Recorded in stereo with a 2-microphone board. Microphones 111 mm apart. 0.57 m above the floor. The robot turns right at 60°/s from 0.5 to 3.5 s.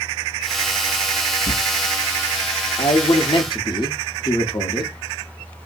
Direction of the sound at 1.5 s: 80° left.